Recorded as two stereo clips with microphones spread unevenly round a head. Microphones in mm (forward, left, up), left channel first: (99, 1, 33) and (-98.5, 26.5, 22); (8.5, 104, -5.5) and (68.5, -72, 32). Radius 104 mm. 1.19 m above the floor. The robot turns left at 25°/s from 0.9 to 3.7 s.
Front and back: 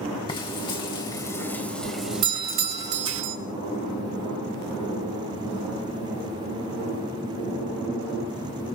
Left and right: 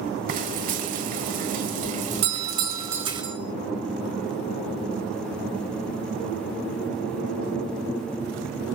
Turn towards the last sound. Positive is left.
turn(degrees=-170)